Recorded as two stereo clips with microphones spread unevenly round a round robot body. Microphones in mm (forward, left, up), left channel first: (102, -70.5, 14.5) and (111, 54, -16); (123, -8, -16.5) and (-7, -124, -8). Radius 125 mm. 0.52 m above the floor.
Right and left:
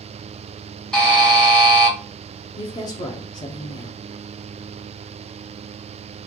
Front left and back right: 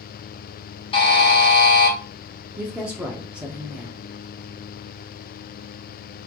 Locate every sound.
0.9 s a buzzer: straight ahead, 1.6 m
2.6 s a woman speaking: 60° right, 0.7 m